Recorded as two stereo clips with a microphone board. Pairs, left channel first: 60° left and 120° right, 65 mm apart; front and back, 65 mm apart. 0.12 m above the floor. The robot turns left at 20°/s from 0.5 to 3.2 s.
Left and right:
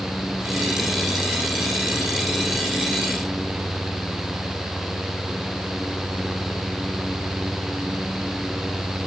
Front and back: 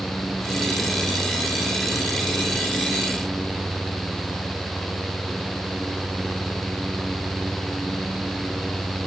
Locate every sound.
Only background noise.